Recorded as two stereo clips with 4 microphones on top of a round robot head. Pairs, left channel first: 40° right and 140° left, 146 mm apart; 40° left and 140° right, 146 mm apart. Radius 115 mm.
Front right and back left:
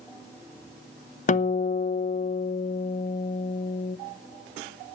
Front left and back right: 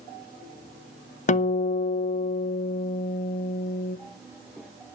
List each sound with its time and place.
1.3 s a guitar: straight ahead, 0.7 m